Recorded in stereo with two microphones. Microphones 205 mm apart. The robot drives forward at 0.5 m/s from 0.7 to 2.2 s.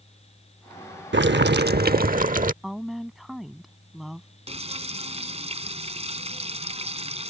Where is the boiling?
65° right (ahead or behind); by 2.5 s 45° right (ahead or behind).